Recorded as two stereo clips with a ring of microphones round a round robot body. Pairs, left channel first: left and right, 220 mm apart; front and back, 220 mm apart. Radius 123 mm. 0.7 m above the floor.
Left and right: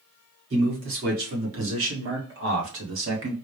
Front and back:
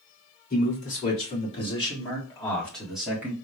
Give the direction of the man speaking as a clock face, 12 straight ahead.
2 o'clock.